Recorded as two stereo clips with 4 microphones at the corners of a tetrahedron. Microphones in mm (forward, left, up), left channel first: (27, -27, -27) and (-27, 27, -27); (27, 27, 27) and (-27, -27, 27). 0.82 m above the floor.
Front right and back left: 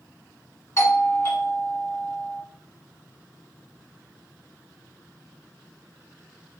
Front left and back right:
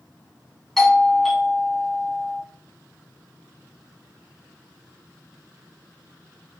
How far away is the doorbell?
About 0.9 m.